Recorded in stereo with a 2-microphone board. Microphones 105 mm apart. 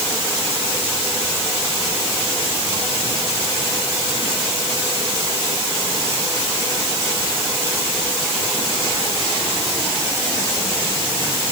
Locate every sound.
Only background noise.